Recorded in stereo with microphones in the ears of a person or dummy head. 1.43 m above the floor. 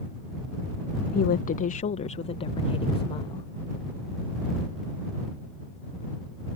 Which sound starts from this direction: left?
A woman speaking, at 1.1 s.